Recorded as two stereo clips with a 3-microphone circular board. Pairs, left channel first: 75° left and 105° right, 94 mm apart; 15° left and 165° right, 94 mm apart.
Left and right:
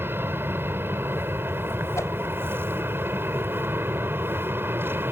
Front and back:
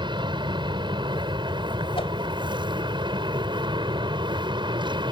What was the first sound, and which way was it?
An aircraft, 165° right.